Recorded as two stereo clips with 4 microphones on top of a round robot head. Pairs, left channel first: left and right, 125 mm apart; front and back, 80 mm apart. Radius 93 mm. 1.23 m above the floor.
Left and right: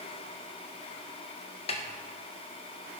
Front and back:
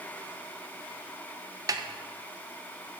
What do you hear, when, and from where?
1.7 s a snare drum: 135° left, 1.1 m